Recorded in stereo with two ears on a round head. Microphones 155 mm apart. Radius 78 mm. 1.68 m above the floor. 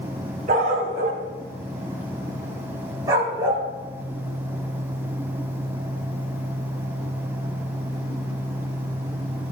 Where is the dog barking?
45° right (ahead or behind), 4.5 m; by 3.7 s 15° right (ahead or behind), 4.5 m.